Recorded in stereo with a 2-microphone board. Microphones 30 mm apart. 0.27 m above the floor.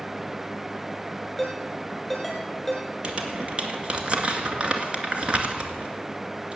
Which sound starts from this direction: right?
Crumpling, at 3.0 s.